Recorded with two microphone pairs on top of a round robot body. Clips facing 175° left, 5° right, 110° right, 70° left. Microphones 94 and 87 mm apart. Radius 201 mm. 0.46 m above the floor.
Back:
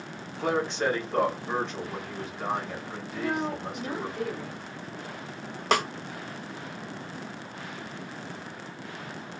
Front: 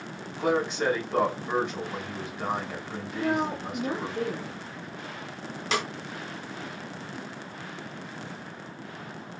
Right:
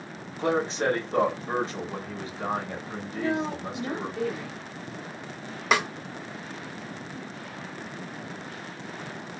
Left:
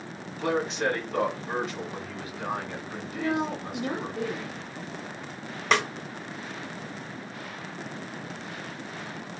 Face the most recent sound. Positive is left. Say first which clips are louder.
# back 4 dB, even
turn(degrees=165)